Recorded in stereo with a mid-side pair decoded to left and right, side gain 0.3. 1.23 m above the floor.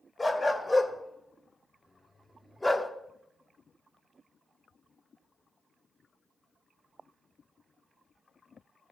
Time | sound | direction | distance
0.2 | a dog barking | 20° left | 2 m